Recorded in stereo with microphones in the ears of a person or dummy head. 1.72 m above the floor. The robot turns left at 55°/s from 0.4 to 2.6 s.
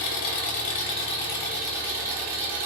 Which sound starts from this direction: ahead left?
An engine running, at 0.0 s.